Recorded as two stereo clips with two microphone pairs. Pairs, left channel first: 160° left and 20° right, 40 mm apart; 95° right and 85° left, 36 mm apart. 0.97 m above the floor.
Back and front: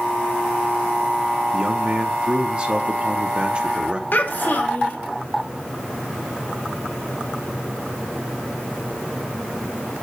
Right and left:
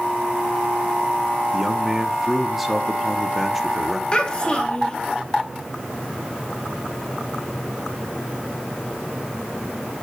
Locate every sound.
1.5 s a man speaking: straight ahead, 0.8 m
4.1 s a child speaking: 160° right, 1.3 m